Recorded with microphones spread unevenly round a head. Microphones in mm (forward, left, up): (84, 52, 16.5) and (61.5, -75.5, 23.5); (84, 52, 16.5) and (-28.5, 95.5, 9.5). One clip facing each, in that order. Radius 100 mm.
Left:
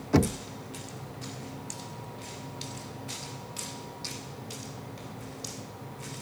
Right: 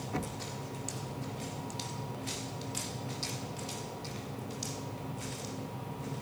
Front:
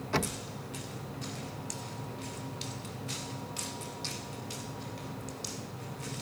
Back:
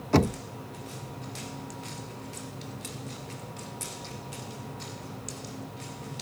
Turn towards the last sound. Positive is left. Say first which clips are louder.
# left 14 dB, back 9 dB
turn(degrees=110)